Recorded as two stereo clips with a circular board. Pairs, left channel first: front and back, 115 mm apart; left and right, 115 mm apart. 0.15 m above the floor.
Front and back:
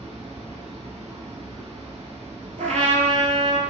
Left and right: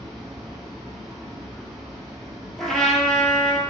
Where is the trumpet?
175° left, 0.6 m.